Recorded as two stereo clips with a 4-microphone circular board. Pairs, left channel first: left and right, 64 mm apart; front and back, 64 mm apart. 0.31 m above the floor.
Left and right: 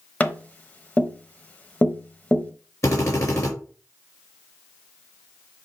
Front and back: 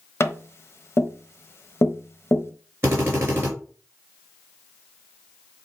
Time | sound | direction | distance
0.2 | tapping | 30° left | 1.0 m
2.8 | a drill | 125° left | 4 m